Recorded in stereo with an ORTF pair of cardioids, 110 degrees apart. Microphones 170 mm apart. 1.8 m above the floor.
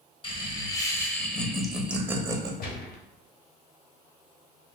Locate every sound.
0.2 s laughter: 30° left, 1.5 m; by 2.5 s 20° right, 1.3 m
2.6 s a gunshot: 60° left, 1.0 m